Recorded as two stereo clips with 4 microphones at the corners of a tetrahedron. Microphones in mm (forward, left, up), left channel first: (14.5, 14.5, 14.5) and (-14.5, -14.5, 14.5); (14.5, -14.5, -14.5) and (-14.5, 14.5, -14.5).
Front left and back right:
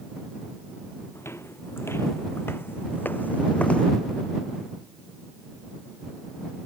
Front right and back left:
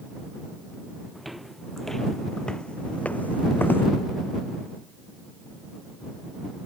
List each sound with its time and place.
1.1 s footsteps: 50° left; by 3.9 s 20° right